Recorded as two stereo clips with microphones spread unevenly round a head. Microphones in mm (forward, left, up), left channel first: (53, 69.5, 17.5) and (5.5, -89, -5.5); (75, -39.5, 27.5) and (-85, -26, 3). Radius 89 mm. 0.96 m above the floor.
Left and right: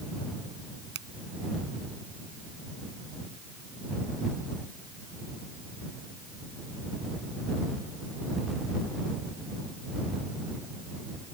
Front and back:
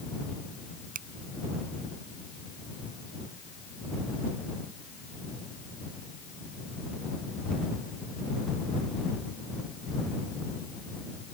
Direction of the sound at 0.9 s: 145° right.